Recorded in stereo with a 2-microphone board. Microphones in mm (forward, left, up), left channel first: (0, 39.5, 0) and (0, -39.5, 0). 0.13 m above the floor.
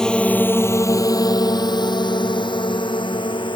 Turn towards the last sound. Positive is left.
turn(degrees=80)